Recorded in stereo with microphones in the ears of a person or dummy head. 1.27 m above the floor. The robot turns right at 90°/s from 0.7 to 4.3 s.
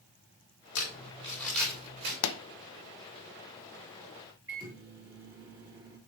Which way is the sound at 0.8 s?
65° left (ahead or behind).